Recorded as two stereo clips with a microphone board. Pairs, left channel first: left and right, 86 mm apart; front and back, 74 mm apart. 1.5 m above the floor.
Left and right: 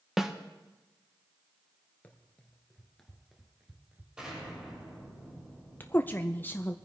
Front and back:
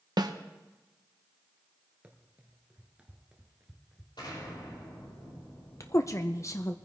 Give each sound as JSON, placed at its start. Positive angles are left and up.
{"t": 0.2, "sound": "a snare drum", "azimuth_deg": -175, "distance_m": 0.9}
{"t": 2.0, "sound": "running footsteps", "azimuth_deg": 135, "distance_m": 1.6}
{"t": 4.2, "sound": "an explosion", "azimuth_deg": -10, "distance_m": 6.5}
{"t": 5.8, "sound": "a woman speaking", "azimuth_deg": 30, "distance_m": 0.6}